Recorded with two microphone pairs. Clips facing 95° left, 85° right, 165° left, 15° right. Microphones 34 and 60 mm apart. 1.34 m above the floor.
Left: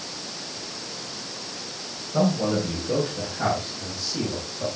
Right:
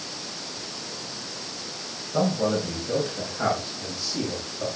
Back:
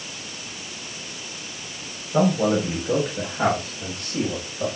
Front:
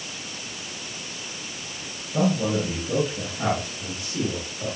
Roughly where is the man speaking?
Behind.